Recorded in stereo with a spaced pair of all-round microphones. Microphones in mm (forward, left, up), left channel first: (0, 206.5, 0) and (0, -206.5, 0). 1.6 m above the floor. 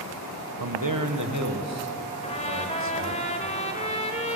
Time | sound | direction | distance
0.6 | a man speaking | 55° right (ahead or behind) | 1.5 m
2.2 | a trumpet | 15° left (ahead or behind) | 1.8 m